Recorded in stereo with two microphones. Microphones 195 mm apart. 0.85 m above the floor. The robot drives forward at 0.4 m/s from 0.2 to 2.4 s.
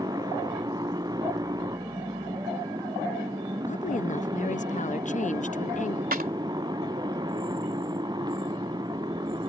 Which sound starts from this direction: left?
A woman speaking, at 3.7 s.